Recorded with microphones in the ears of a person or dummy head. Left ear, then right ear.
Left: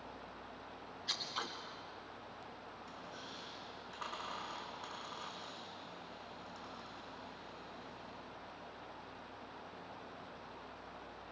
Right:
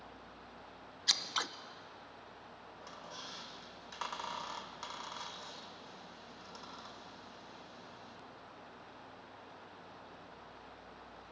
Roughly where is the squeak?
Right.